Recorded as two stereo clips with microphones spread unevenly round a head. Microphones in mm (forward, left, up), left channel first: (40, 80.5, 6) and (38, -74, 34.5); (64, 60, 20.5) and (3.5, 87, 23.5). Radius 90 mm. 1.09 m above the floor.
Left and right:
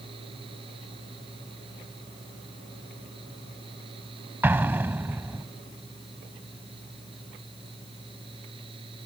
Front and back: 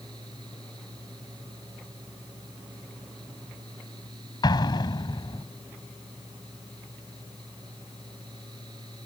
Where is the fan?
155° right.